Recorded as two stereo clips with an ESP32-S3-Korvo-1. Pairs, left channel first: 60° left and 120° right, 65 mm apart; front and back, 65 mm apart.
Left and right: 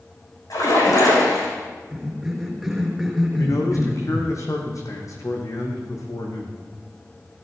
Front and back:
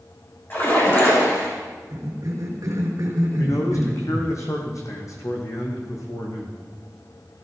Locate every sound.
0.5 s a splash: 50° left, 7 m
1.9 s a cough: 155° left, 4.5 m
3.4 s a man speaking: 30° left, 4.5 m